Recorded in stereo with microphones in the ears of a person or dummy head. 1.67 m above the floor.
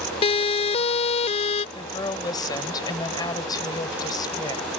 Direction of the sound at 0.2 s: 30° left (ahead or behind).